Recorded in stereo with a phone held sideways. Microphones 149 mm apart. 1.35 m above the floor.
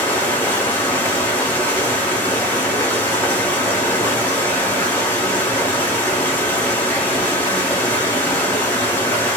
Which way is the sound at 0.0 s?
15° left (ahead or behind).